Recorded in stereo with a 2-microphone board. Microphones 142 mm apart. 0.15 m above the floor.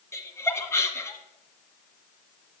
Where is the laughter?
20° left (ahead or behind), 1.4 m.